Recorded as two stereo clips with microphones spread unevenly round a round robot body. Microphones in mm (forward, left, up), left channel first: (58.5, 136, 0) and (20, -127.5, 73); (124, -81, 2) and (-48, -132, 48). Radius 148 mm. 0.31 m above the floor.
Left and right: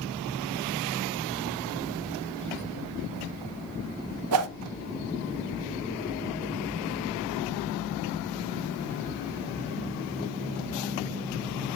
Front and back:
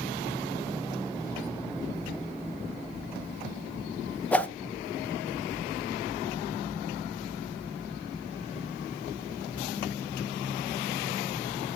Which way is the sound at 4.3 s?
65° right.